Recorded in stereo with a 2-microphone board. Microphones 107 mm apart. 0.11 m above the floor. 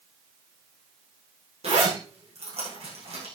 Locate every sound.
1.6 s a zipper: 75° right (ahead or behind), 8.5 m